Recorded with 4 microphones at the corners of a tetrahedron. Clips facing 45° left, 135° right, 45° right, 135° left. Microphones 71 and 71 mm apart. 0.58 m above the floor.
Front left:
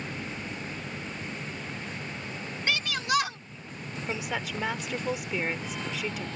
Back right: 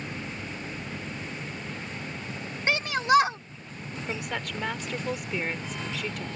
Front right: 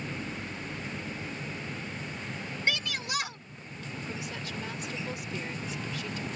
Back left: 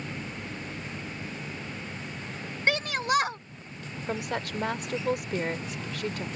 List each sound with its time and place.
2.7 s a shout: 170° left
4.1 s a woman speaking: 130° left